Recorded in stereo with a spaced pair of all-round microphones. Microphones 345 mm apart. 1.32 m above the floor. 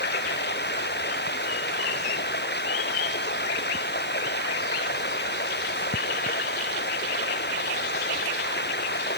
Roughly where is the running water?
Left.